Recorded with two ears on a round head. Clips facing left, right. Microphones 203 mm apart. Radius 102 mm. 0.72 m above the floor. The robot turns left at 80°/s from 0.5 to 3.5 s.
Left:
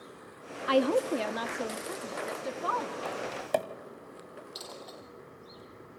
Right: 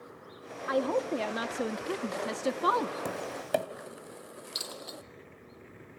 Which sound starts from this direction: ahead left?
A woman speaking, at 0.7 s.